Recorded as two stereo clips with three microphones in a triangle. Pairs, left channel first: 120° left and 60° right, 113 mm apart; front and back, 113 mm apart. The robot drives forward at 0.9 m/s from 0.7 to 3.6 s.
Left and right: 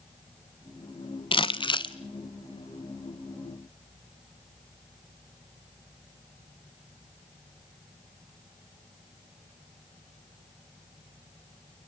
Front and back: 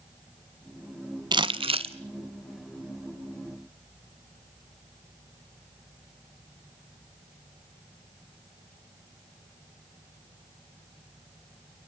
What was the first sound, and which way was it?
Crumpling, 145° left.